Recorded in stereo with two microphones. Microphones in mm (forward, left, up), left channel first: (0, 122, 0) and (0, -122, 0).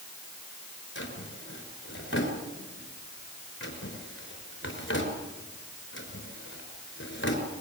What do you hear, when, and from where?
0.9 s a drawer: 50° left (ahead or behind), 5 m